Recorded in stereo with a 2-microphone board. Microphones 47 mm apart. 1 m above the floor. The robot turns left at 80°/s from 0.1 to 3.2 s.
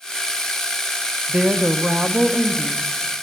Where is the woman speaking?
50° right, 0.7 m; by 3.2 s 155° left, 0.7 m.